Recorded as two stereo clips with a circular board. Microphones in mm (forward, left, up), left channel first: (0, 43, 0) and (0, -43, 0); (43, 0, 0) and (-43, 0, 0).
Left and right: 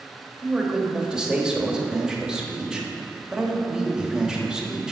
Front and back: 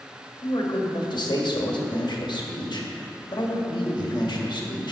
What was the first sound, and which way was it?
A man speaking, 10° right.